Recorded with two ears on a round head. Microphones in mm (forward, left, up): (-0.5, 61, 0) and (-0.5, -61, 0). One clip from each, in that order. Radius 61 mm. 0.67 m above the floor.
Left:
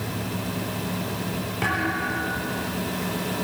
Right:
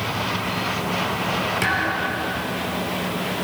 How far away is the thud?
About 5 m.